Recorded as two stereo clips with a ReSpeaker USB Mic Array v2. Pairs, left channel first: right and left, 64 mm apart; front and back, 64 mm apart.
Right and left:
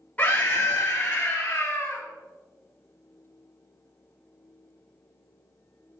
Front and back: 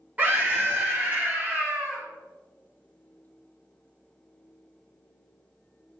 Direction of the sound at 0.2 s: 135° right.